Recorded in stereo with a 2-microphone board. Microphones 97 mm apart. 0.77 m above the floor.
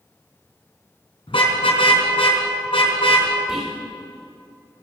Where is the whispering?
15° right (ahead or behind), 3 m.